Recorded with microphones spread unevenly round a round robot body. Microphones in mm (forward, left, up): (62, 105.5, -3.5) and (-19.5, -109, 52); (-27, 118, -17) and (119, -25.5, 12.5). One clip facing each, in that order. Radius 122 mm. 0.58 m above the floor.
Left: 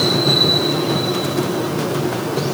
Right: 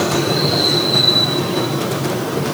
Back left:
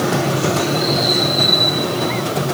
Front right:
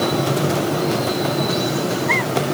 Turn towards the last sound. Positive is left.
No sound to turn to.